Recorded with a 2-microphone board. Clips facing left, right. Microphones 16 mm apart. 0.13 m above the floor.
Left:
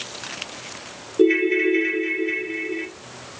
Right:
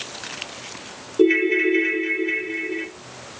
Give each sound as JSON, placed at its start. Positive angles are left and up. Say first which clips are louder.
{"t": 1.2, "sound": "a ringtone", "louder": "even", "side_deg": -5, "distance_m": 1.3}